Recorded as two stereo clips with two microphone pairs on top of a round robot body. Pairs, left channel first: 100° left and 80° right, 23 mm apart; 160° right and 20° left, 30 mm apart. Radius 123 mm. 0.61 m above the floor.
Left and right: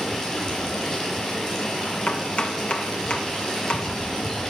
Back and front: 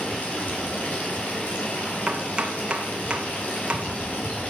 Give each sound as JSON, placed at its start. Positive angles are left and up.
{"t": 0.0, "sound": "running water", "azimuth_deg": 165, "distance_m": 5.5}
{"t": 2.1, "sound": "chopping", "azimuth_deg": 70, "distance_m": 2.5}